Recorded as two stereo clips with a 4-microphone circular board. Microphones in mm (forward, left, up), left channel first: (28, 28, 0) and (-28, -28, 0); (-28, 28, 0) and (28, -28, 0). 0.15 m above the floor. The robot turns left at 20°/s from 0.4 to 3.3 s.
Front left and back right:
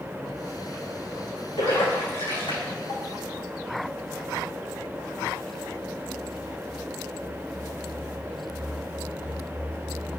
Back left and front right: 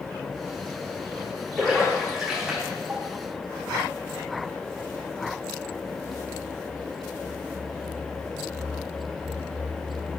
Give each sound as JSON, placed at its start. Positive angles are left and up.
{"t": 1.6, "sound": "a splash", "azimuth_deg": 55, "distance_m": 5.5}